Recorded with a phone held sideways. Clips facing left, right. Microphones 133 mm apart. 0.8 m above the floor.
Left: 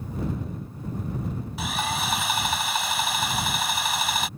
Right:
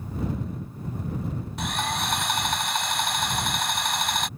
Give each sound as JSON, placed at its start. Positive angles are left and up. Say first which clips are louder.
{"t": 1.6, "sound": "sawing", "louder": "even", "side_deg": 5}